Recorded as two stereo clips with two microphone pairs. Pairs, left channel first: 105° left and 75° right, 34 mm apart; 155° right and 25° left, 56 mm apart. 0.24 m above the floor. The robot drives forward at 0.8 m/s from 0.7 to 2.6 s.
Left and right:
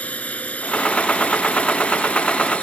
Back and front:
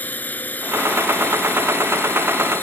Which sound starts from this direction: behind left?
A drone, at 0.0 s.